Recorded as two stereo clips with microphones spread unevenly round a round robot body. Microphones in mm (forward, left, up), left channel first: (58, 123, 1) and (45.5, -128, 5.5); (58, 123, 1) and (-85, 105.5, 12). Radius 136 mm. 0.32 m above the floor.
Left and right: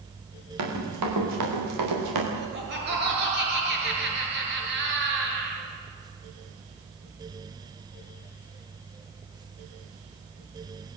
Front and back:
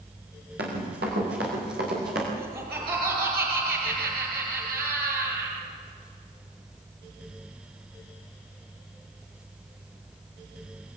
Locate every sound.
0.6 s running footsteps: 130° right, 7 m; by 2.2 s 120° right, 7 m
2.4 s laughter: 145° right, 5 m